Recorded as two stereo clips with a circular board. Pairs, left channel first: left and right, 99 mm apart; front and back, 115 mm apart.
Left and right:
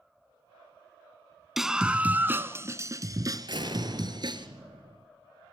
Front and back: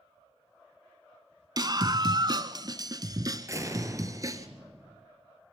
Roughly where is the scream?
Behind.